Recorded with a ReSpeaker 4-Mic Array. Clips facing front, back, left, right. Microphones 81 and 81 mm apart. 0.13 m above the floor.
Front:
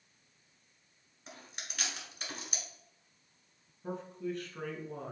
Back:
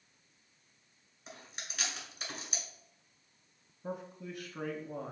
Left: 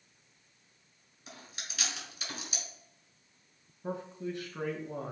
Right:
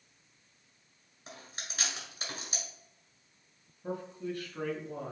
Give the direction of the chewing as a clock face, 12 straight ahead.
3 o'clock.